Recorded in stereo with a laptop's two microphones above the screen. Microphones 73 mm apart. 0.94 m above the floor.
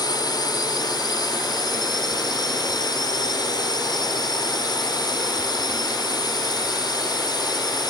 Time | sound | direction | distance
0.0 | a drone | 70° left (ahead or behind) | ?